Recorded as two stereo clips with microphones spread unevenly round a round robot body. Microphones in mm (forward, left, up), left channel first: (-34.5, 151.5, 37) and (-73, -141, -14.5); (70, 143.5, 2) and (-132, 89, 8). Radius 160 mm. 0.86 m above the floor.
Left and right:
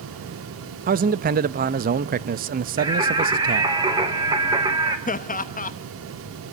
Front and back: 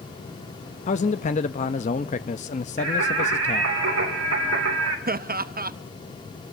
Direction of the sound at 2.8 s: 170° right.